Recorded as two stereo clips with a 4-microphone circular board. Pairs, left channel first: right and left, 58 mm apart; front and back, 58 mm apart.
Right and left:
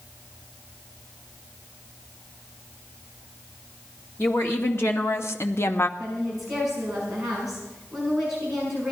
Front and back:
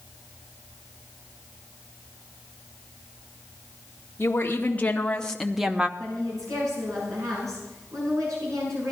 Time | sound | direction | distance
4.2 | a woman speaking | 50° right | 1.5 m
6.0 | a woman speaking | 175° left | 6.5 m